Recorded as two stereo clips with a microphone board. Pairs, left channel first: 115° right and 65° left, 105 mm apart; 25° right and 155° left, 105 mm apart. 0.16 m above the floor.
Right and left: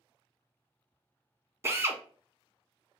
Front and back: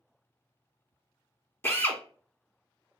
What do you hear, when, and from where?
1.6 s a drill: 25° left, 0.5 m